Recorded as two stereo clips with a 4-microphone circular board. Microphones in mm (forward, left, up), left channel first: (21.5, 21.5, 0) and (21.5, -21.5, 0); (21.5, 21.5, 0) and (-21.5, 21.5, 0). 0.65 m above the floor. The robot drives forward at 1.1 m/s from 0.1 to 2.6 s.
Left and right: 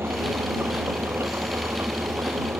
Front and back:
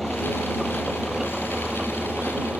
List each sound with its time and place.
0.0 s an engine running: 90° right; by 2.6 s 115° right